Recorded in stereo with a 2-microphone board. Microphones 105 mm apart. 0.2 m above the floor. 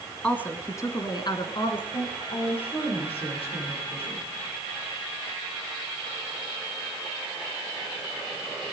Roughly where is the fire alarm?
I don't hear a fire alarm.